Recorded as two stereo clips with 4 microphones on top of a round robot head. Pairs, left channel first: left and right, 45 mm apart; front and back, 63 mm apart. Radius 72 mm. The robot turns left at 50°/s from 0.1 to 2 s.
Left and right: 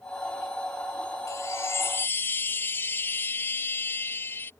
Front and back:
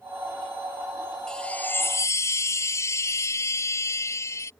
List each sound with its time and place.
1.3 s a chime: 80° left; by 4.5 s 45° left